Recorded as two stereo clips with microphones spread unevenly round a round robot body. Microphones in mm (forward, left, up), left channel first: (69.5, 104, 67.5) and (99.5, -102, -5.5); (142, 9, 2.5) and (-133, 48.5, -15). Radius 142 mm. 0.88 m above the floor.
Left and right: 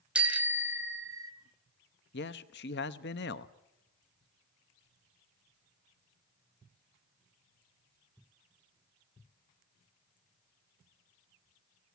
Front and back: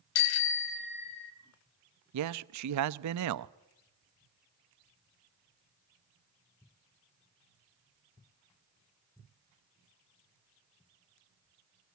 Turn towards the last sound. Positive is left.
turn(degrees=155)